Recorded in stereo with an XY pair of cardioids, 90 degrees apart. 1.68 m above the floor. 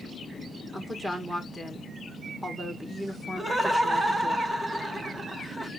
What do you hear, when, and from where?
0.7 s a woman speaking: 5° right, 1.7 m
3.4 s laughter: 20° right, 1.2 m